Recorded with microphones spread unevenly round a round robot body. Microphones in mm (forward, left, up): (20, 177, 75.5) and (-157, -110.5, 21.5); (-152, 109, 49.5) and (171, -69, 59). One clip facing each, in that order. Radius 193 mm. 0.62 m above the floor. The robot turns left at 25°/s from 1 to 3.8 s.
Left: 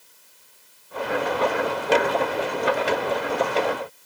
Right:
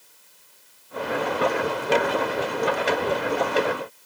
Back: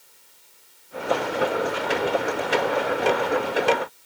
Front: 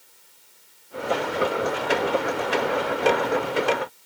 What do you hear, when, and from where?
Only background noise.